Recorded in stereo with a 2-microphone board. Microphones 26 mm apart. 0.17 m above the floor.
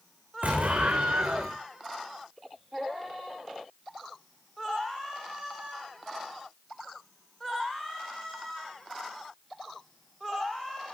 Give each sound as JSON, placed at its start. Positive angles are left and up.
{"t": 0.4, "sound": "an explosion", "side_deg": -85, "distance_m": 3.0}